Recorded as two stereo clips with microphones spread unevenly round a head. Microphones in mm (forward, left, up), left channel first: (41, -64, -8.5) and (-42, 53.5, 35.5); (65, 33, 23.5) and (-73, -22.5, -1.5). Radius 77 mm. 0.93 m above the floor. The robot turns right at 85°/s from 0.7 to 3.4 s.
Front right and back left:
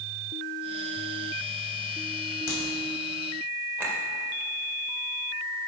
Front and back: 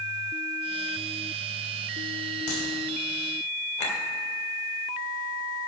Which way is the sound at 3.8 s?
45° left.